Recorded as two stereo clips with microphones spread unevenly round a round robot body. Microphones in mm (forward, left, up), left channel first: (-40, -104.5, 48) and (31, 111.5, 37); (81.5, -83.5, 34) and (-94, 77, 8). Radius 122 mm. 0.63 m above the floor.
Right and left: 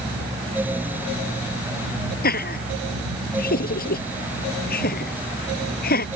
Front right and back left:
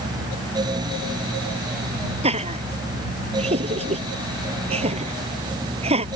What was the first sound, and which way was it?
Laughter, 160° right.